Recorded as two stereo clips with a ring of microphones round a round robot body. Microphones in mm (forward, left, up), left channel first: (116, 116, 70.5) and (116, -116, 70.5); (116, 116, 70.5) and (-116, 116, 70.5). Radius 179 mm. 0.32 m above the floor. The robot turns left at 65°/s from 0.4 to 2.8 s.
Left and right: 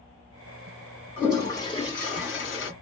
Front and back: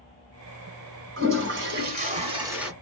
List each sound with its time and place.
1.2 s a toilet flushing: 170° right, 1.7 m; by 2.7 s 90° left, 1.7 m